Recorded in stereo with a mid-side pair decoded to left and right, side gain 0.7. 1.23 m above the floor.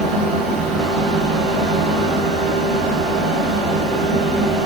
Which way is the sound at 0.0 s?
65° right.